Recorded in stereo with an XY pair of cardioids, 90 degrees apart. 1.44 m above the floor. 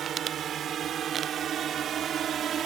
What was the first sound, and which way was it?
A drone, 65° right.